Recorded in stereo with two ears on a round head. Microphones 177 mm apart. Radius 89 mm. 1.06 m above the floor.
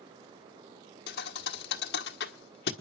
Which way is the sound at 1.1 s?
55° left (ahead or behind).